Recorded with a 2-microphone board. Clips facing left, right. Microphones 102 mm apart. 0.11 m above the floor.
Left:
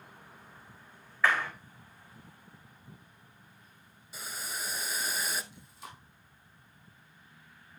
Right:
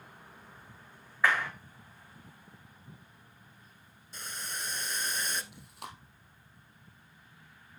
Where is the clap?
15° right (ahead or behind), 5 m.